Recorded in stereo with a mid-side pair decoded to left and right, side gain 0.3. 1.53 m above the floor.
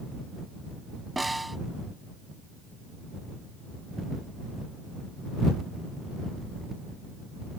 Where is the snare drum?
15° right.